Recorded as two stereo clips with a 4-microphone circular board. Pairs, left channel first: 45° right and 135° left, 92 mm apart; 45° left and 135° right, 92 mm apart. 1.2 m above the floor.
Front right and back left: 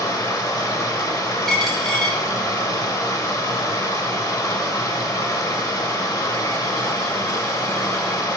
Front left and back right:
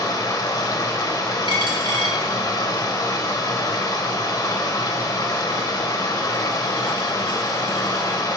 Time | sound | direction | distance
0.0 | running water | straight ahead | 0.9 m
1.5 | a dropped coin | 130° right | 1.5 m